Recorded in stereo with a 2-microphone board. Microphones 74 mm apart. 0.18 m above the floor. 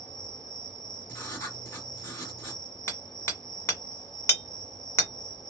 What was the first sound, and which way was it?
An insect, 75° left (ahead or behind).